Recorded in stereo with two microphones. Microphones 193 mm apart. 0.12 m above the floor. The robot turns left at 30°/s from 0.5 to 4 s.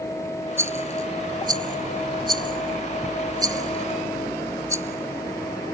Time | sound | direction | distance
0.6 | a rattle | 15° right (ahead or behind) | ?